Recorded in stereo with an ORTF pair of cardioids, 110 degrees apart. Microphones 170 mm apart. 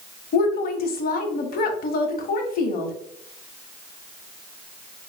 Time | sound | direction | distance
0.3 | a woman speaking | 60° left | 1.0 m